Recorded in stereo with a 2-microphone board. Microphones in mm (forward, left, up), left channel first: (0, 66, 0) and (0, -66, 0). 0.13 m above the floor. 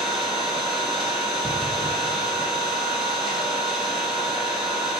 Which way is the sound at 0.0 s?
Centre (ahead or behind).